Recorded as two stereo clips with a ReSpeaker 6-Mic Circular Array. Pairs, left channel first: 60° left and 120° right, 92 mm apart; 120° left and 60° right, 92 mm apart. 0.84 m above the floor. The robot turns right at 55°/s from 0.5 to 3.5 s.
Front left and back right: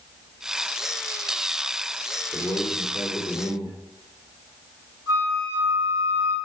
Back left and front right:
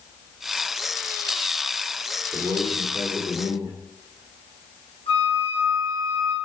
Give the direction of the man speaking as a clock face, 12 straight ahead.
12 o'clock.